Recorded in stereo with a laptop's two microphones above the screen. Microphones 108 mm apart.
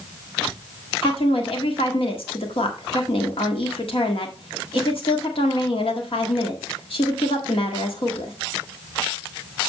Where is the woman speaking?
60° left (ahead or behind), 1.7 m.